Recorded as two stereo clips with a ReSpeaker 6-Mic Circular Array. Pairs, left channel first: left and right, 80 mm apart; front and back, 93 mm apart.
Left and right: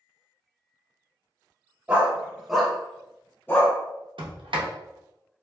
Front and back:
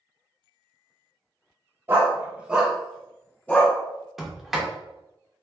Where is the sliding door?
95° right, 0.7 m.